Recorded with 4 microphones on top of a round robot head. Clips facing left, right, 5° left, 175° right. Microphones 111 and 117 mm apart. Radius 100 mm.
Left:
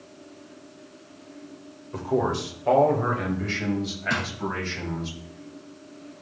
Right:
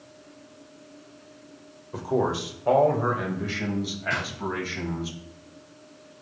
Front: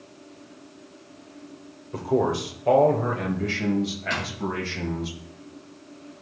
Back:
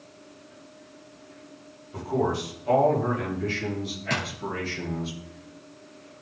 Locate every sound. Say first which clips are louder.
1.9 s a man speaking: even, front 3 dB; 10° right, 2 m
4.1 s a drawer: left 3 dB, even; 130° left, 2.5 m